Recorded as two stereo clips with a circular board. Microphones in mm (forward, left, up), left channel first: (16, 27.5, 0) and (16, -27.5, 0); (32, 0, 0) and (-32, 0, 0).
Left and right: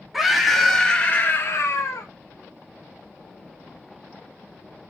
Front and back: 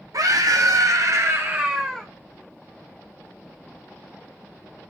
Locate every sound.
0.1 s a scream: 175° right, 1.8 m; by 2.1 s 90° left, 1.1 m